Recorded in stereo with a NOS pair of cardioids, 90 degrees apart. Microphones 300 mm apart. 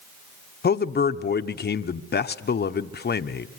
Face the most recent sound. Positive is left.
turn(degrees=35)